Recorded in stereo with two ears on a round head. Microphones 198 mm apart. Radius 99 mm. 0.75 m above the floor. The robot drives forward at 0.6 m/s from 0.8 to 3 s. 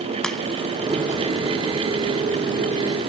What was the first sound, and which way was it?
A crack, 5° left (ahead or behind).